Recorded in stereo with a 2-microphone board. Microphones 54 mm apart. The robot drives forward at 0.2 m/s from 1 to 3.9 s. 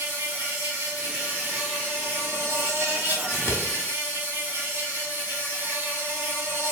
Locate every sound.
0.0 s an insect: 55° right (ahead or behind), 1.6 m; by 6.7 s 45° right (ahead or behind), 1.9 m
3.3 s scissors: 85° left, 0.6 m; by 3.6 s 80° left, 0.6 m